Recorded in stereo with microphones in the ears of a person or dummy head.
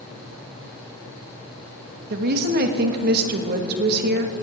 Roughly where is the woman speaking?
Right.